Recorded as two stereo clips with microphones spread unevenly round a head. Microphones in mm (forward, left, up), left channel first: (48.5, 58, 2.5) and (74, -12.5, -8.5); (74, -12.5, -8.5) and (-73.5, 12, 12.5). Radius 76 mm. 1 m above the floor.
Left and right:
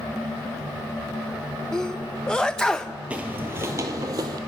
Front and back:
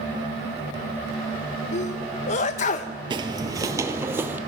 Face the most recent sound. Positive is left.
turn(degrees=-120)